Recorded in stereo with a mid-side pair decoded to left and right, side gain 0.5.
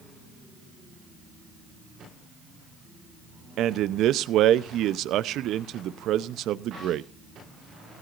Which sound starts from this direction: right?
A man speaking, at 3.6 s.